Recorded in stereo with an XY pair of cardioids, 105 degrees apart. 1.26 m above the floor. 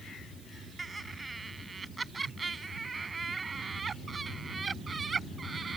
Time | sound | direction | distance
0.8 | laughter | 20° right | ?